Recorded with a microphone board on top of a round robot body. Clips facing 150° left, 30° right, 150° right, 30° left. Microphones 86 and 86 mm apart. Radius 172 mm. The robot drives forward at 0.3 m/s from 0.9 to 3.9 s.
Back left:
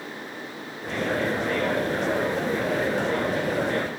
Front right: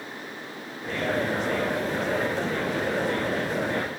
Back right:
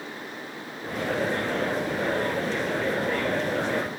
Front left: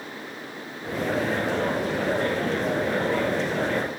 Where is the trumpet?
No trumpet in this recording.